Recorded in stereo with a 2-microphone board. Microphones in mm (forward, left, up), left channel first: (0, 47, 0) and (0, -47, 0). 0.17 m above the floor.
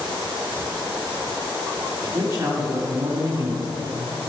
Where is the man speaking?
30° right (ahead or behind), 2.5 m.